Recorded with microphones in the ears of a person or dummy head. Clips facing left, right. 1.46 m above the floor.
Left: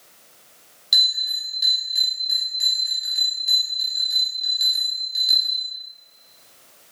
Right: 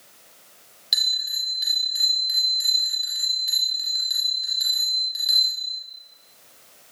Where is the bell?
5° right (ahead or behind), 6.5 m.